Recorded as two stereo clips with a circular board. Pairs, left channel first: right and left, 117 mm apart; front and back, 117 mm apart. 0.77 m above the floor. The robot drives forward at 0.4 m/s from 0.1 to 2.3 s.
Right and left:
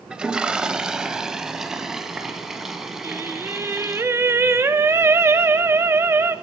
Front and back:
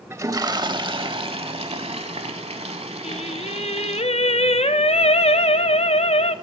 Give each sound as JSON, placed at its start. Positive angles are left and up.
{"t": 0.1, "sound": "a toilet flushing", "azimuth_deg": 160, "distance_m": 0.5}
{"t": 3.0, "sound": "singing", "azimuth_deg": 25, "distance_m": 0.5}